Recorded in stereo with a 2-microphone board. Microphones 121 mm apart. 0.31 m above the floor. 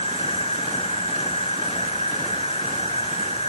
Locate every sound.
0.0 s an insect: 55° left (ahead or behind), 0.9 m